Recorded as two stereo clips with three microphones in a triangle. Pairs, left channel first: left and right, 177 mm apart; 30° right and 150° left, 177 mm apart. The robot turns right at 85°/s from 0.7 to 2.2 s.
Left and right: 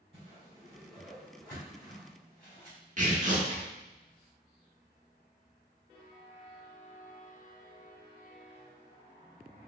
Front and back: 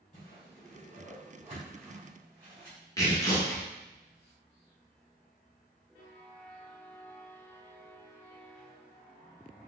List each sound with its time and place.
0.1 s a whoosh: 45° right, 1.9 m; by 2.8 s 80° left, 1.9 m
3.0 s tearing paper: 95° right, 0.9 m